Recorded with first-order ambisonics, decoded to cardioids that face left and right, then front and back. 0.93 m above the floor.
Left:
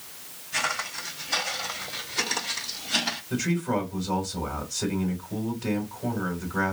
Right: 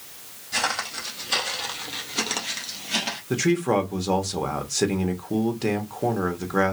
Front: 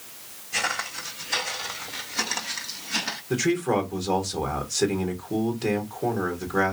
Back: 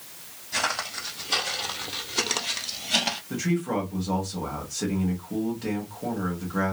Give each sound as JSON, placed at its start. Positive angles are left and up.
{"t": 0.5, "sound": "footsteps", "azimuth_deg": -125, "distance_m": 2.5}
{"t": 3.3, "sound": "a man speaking", "azimuth_deg": -70, "distance_m": 1.2}